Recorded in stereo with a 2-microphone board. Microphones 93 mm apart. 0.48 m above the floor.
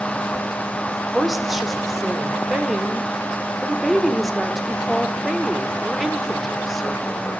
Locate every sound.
0.9 s a woman speaking: centre (ahead or behind), 1.4 m